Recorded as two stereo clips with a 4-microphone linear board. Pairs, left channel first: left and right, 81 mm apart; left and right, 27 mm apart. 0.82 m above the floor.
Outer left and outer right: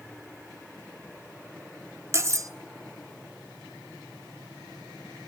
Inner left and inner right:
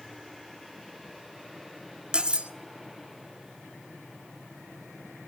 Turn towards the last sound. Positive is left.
turn(degrees=-40)  # may be behind; listen again after turning